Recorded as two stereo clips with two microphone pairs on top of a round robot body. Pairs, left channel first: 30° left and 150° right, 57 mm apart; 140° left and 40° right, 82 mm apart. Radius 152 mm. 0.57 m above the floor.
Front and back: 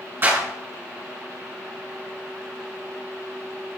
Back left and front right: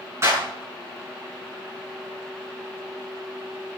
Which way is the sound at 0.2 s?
95° right.